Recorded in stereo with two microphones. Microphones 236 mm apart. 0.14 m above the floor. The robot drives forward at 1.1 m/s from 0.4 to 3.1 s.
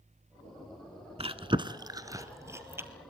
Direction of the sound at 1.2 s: 25° right (ahead or behind).